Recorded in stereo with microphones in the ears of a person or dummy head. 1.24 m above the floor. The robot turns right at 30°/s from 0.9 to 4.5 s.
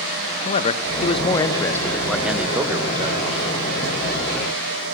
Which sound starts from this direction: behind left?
A man speaking, at 0.5 s.